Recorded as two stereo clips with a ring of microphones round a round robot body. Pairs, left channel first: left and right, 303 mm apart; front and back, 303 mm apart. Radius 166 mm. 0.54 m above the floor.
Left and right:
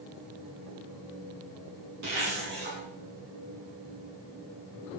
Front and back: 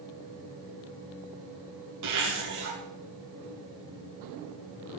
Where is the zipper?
150° right, 4.5 m.